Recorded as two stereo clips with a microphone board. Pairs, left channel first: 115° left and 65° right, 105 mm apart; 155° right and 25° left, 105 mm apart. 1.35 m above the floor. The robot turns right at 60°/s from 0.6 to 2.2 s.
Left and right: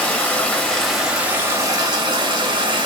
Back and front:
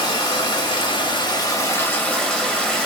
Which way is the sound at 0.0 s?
175° right.